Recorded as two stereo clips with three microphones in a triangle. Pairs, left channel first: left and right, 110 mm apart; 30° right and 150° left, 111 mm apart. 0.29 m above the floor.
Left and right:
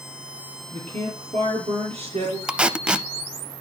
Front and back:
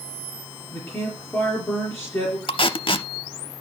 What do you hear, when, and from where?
0.7 s a man speaking: 110° right, 4 m
2.5 s tape being pulled: 10° right, 0.5 m